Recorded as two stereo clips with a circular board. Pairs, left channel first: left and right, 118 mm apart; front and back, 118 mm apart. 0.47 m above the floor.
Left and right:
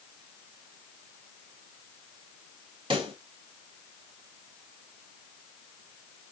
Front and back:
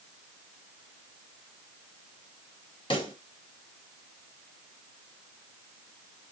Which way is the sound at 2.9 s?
45° right.